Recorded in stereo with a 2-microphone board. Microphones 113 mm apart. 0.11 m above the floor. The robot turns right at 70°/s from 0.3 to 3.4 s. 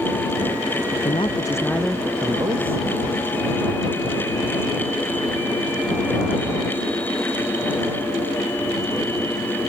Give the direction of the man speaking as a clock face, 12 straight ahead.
8 o'clock.